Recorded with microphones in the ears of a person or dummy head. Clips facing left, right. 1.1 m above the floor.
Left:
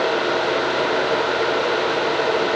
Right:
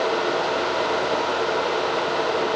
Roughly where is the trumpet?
I don't hear a trumpet.